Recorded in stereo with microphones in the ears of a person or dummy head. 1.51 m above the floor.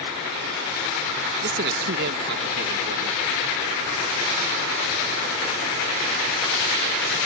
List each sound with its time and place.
1.4 s a man speaking: 60° right (ahead or behind)